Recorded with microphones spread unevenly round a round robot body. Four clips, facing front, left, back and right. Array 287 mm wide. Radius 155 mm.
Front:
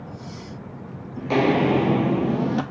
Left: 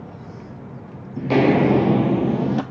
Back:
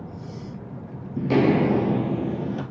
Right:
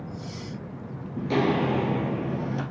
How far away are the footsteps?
About 0.5 m.